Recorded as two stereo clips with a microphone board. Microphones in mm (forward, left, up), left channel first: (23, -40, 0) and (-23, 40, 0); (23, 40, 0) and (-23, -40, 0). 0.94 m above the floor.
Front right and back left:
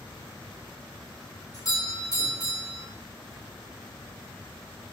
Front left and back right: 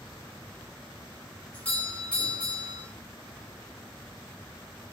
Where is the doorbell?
15° right, 5 m.